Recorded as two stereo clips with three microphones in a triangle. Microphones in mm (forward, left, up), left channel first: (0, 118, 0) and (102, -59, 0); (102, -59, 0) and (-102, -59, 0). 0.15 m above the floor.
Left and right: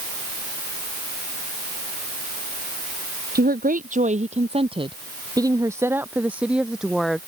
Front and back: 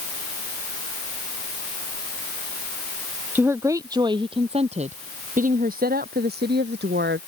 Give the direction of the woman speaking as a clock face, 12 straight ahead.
3 o'clock.